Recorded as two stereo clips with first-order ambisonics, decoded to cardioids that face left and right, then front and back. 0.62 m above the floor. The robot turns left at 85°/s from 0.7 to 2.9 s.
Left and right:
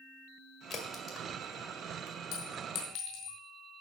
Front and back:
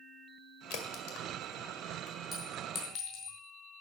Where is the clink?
110° left, 2.5 m; by 3.4 s 60° left, 2.5 m.